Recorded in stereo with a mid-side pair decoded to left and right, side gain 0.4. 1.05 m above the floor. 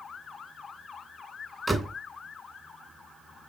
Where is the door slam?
15° right, 2.5 m.